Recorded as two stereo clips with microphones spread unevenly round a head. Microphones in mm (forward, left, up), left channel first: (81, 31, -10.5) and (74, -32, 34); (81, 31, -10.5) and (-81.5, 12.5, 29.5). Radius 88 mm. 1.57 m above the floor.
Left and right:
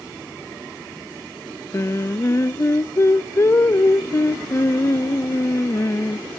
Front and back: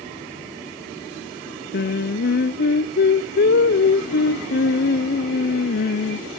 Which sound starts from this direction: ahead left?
Singing, at 1.7 s.